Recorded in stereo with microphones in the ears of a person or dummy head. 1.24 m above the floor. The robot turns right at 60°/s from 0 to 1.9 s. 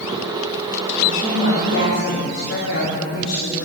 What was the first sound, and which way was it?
A woman speaking, 35° left.